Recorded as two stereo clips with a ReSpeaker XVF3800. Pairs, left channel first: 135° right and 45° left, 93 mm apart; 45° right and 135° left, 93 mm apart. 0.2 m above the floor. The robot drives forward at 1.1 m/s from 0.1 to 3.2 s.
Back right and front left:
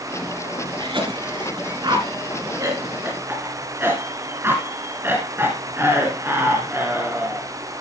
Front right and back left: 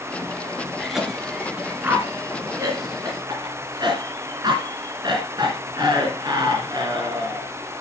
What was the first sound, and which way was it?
A cough, 45° left.